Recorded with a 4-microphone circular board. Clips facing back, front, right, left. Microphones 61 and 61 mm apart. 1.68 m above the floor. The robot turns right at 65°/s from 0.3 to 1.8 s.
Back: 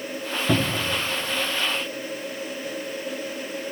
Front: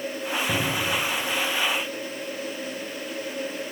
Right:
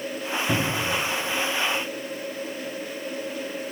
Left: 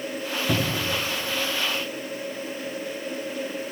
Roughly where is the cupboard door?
Behind.